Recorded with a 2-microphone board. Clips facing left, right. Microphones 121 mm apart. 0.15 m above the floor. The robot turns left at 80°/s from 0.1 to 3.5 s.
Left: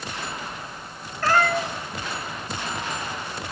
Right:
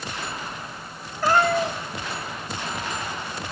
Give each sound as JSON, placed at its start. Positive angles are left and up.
{"t": 1.2, "sound": "a cat meowing", "azimuth_deg": -15, "distance_m": 1.6}